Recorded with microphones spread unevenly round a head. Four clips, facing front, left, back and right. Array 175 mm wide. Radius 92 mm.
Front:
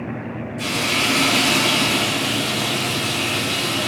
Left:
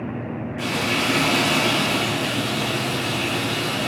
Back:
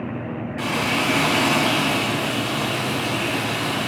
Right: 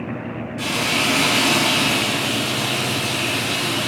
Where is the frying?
155° right, 3 m.